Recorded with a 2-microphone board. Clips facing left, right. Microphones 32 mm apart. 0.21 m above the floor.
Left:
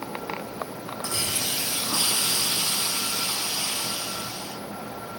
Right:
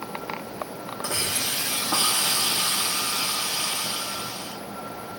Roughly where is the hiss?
Right.